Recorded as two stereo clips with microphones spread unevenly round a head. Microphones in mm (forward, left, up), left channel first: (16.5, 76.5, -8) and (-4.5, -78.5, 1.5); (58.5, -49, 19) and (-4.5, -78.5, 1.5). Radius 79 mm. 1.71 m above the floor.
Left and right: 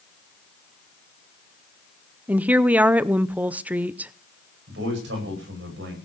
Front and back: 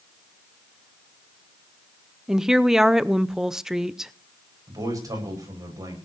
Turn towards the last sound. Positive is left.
turn(degrees=-120)